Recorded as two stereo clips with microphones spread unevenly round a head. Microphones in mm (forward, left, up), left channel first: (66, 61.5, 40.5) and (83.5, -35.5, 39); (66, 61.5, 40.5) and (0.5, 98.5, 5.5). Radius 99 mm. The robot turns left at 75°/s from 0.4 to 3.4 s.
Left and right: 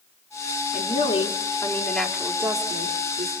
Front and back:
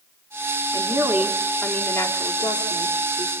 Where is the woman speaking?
110° left, 3.5 m; by 3.3 s 80° right, 3.5 m.